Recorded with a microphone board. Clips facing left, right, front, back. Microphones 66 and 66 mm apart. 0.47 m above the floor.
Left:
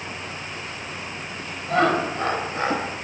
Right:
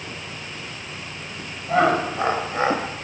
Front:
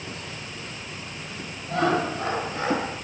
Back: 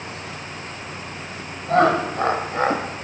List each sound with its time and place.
1.7 s laughter: 170° right, 2.5 m; by 2.9 s 150° right, 2.5 m